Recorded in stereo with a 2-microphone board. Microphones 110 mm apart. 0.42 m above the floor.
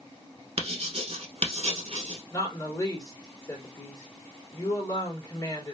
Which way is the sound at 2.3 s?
30° left (ahead or behind).